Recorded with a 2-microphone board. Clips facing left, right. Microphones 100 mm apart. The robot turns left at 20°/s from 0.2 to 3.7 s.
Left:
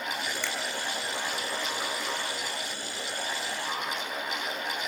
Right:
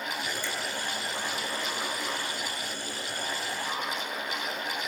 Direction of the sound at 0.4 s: 70° left (ahead or behind).